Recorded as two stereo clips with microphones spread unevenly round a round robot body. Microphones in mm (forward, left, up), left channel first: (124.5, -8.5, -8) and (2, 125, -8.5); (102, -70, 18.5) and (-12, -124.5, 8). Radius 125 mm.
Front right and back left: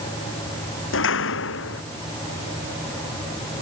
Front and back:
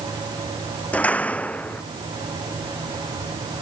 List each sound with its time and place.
0.9 s a door slam: 55° right